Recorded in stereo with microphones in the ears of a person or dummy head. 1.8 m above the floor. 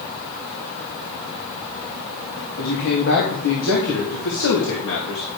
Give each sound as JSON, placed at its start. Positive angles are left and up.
{"t": 2.6, "sound": "a man speaking", "side_deg": 65, "distance_m": 3.0}